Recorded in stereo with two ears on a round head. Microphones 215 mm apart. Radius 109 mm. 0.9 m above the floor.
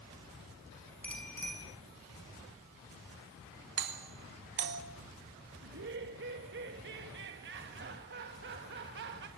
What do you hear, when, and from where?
1.0 s a bicycle bell: 5° left (ahead or behind), 6 m
3.8 s a doorbell: 50° right (ahead or behind), 2.5 m
5.6 s laughter: 50° right (ahead or behind), 1.5 m